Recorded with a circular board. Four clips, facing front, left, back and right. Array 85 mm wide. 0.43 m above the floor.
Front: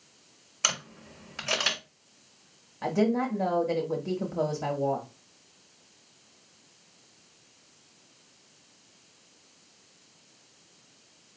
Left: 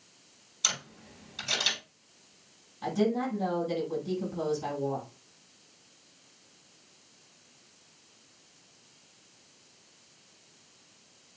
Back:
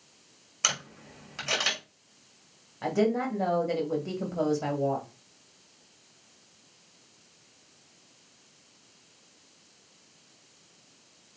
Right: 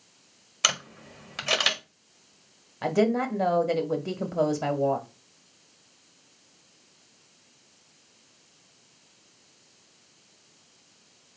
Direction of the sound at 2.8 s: 90° right.